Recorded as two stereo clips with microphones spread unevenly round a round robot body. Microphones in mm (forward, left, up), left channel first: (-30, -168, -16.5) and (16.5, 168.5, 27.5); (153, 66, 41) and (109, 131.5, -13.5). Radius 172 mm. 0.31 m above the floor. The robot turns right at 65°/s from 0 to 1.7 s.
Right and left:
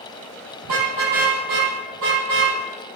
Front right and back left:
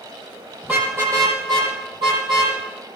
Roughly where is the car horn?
Ahead left.